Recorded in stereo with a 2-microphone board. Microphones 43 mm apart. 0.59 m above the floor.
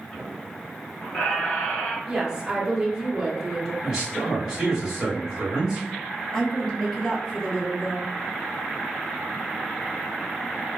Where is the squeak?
15° left (ahead or behind), 1.6 m.